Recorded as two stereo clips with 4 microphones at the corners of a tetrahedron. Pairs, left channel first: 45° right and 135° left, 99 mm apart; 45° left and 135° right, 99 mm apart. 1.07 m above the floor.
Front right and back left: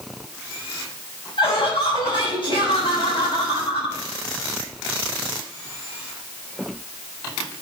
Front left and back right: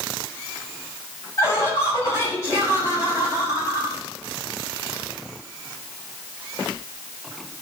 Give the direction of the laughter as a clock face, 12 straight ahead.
1 o'clock.